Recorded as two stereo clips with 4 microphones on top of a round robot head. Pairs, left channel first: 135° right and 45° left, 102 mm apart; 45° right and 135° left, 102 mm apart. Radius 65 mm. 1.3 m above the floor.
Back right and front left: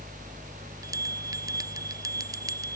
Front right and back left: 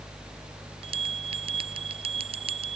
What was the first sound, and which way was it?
A bell, 105° left.